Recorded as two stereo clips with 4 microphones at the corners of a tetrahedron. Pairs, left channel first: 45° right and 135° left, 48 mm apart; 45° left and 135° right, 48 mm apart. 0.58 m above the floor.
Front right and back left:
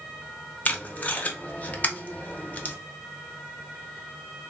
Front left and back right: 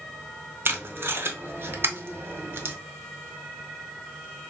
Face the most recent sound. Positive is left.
turn(degrees=-100)